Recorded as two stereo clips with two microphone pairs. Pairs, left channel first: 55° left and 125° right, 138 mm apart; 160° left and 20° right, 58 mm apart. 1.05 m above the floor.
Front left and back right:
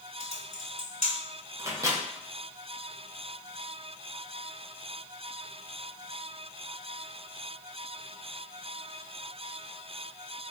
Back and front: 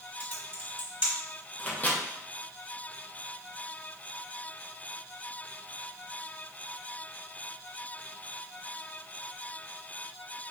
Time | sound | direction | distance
0.2 | typing on a keyboard | 25° left | 1.2 m
1.6 | a microwave | 170° right | 0.5 m